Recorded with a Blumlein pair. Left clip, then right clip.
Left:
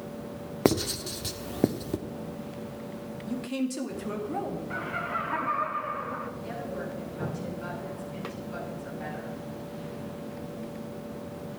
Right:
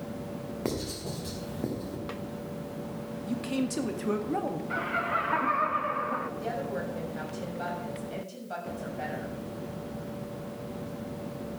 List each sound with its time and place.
0.7 s writing: 60° left, 1.3 m
3.3 s a man speaking: 10° right, 1.9 m
4.7 s laughter: 10° right, 1.1 m
6.4 s a woman speaking: 50° right, 7 m